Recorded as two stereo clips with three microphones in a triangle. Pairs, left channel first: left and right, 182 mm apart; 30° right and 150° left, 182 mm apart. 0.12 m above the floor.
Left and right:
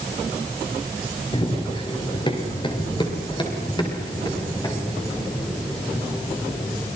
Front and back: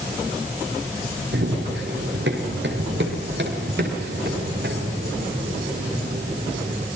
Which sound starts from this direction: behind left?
Running footsteps, at 1.3 s.